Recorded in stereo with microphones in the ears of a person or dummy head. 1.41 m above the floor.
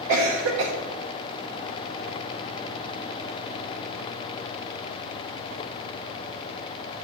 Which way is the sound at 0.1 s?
65° right (ahead or behind).